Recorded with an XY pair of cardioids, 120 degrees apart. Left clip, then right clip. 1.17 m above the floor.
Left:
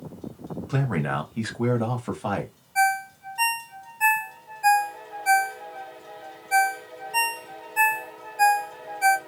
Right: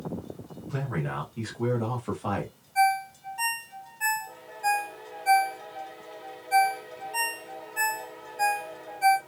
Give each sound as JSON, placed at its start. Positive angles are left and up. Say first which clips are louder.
{"t": 0.7, "sound": "a man speaking", "louder": "left 6 dB", "azimuth_deg": 60, "distance_m": 1.4}
{"t": 2.8, "sound": "a ringtone", "louder": "left 1 dB", "azimuth_deg": 30, "distance_m": 0.9}